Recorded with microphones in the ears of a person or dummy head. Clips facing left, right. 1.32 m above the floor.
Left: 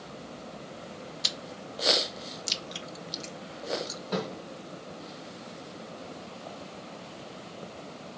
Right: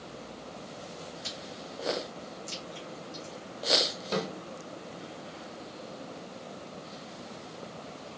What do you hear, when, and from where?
1.2 s chewing: 80° left, 0.7 m
4.1 s a snare drum: 35° right (ahead or behind), 2.5 m